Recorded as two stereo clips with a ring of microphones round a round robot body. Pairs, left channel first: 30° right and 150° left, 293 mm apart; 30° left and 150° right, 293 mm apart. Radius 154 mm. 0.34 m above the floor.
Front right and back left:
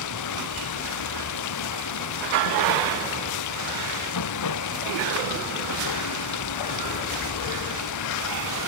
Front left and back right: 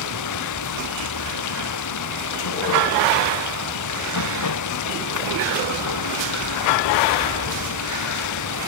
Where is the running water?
Straight ahead.